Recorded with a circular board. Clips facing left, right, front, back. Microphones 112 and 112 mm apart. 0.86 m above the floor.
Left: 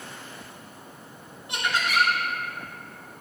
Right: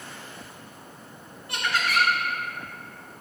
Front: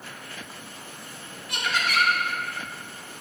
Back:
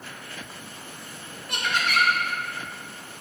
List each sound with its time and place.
1.5 s laughter: 155° left, 1.9 m